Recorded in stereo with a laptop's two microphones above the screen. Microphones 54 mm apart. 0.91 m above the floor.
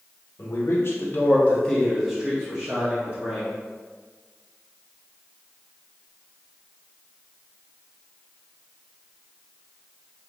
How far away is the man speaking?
About 0.9 m.